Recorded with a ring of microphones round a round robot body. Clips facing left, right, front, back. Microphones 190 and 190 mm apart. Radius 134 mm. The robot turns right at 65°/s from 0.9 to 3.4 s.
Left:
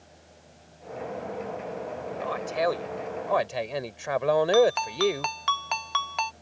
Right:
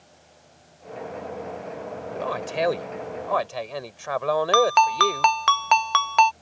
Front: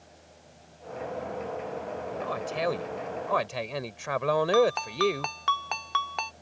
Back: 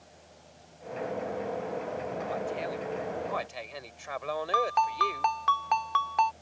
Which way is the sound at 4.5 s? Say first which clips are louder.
Even, front 5 dB; 70° right.